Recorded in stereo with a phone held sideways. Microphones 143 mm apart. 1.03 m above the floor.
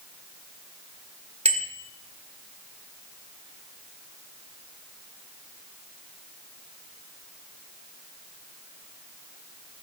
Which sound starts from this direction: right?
A bicycle bell, at 1.4 s.